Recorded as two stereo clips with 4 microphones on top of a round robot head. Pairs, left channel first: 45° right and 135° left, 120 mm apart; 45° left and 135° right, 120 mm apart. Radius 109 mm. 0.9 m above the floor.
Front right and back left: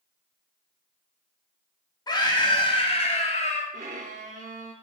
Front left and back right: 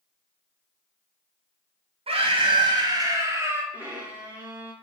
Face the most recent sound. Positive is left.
turn(degrees=150)